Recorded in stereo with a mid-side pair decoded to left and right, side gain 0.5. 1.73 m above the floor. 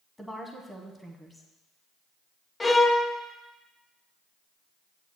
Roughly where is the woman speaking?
Ahead.